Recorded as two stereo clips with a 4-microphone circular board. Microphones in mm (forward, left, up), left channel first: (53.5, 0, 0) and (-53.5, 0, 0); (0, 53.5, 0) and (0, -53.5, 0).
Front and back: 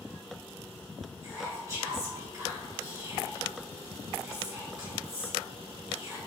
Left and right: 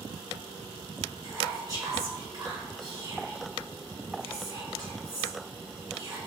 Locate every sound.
1.2 s whispering: 125° right, 2.0 m